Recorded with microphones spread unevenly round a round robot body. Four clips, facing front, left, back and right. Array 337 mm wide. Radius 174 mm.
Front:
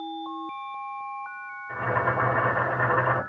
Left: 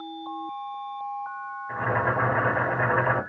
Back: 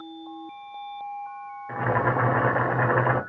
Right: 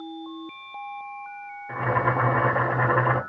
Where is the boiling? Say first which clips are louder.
Right 2 dB, back 2 dB; 145° right, 1.1 m.